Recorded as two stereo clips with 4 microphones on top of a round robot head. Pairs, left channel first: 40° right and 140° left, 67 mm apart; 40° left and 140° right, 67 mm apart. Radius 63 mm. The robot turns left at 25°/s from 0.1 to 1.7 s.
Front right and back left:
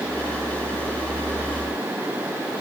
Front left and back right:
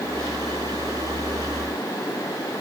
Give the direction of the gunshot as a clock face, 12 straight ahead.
I don't hear a gunshot.